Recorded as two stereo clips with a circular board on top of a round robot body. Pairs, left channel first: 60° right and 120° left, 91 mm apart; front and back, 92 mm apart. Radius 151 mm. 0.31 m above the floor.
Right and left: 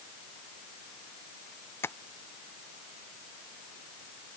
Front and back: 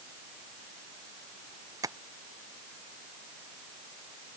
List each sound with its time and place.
1.8 s tapping: 125° right